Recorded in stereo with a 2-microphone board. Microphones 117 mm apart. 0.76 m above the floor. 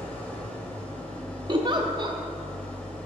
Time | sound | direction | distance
0.0 | an engine running | 10° left (ahead or behind) | 1.1 m
1.5 | a giggle | 40° right (ahead or behind) | 0.5 m